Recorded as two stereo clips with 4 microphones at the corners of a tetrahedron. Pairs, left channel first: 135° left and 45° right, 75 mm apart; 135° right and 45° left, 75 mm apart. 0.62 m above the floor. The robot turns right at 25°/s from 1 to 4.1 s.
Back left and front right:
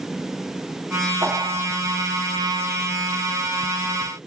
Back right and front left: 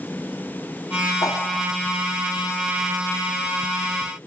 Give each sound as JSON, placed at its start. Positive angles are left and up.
{"t": 1.2, "sound": "a whoosh", "azimuth_deg": -90, "distance_m": 2.5}